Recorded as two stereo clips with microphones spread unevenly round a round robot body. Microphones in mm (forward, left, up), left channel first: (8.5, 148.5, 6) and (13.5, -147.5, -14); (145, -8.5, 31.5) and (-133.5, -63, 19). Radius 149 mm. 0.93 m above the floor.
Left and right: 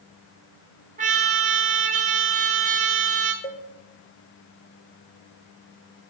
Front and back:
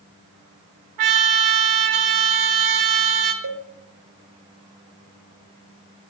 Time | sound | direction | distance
1.0 | a trumpet | 155° right | 0.9 m
3.4 | a cowbell | 155° left | 0.6 m